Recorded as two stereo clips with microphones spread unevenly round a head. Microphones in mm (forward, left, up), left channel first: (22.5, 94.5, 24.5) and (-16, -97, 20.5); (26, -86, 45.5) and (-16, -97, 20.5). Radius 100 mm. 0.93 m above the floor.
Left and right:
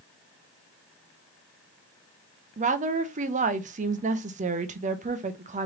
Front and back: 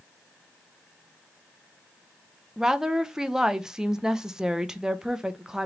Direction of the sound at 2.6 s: 135° right.